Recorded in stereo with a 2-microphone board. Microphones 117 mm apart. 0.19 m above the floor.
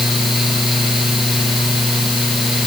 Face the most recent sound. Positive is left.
No sound to turn to.